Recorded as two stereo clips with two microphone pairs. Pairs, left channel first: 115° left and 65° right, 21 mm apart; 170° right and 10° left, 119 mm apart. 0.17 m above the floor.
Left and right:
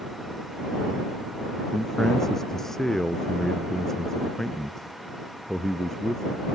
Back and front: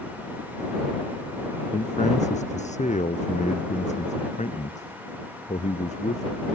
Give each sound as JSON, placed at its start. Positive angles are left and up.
{"t": 1.7, "sound": "a man speaking", "azimuth_deg": -175}